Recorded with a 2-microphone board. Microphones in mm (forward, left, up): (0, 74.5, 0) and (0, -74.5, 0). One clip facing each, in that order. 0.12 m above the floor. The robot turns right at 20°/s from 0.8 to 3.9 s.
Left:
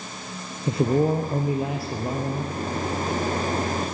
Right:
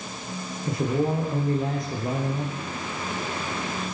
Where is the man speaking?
150° left, 2.5 m; by 2.6 s 170° right, 2.5 m.